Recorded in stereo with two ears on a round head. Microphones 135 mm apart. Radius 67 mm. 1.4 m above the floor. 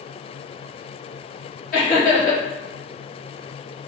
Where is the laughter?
55° left (ahead or behind), 1.3 m.